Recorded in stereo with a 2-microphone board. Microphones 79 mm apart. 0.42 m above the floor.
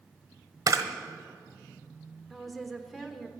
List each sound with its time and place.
0.7 s a camera shutter: 45° right (ahead or behind), 1.1 m
2.3 s a woman speaking: centre (ahead or behind), 1.0 m